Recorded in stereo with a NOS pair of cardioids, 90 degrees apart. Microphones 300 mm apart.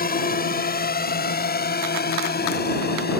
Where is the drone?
30° left.